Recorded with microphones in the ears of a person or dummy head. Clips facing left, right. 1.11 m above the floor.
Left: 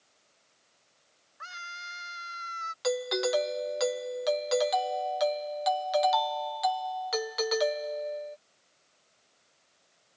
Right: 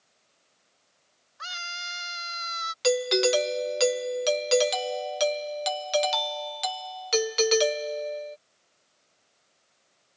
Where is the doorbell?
30° right (ahead or behind).